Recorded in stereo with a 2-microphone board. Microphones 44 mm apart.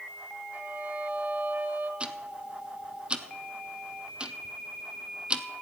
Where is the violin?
35° right (ahead or behind), 1.1 m.